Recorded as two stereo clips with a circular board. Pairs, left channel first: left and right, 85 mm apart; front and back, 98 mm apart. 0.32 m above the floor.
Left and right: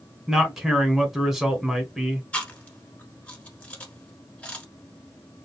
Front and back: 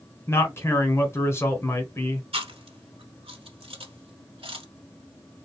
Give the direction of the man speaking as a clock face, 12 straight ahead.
12 o'clock.